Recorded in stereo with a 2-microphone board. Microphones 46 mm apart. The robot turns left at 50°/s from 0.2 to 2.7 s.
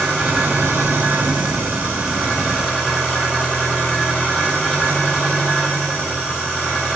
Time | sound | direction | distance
0.0 | an engine running | 55° right | 8.5 m